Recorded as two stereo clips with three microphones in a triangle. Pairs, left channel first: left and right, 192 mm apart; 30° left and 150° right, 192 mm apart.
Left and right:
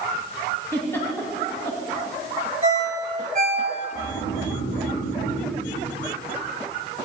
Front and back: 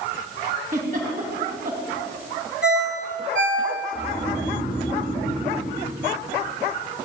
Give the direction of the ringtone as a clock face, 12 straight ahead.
5 o'clock.